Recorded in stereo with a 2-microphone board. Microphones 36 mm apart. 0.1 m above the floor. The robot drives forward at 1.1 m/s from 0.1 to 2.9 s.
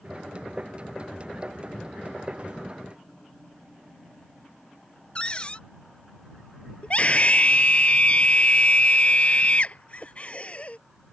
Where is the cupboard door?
30° left (ahead or behind).